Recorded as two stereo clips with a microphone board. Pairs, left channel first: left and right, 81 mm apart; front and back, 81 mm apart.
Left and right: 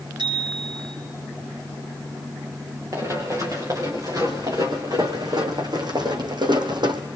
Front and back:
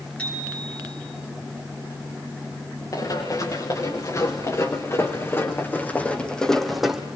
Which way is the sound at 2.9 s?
40° right.